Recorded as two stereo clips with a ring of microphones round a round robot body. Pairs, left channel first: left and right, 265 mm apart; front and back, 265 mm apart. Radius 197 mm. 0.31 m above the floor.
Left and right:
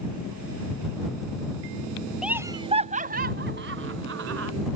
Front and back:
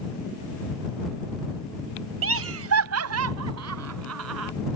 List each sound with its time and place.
2.2 s laughter: 175° right; by 4.5 s 140° right